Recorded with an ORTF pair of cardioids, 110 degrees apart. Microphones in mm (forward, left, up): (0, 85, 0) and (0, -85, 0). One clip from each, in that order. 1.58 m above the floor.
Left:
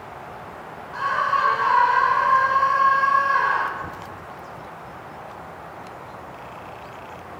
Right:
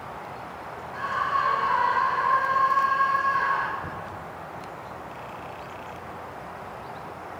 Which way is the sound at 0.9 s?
35° left.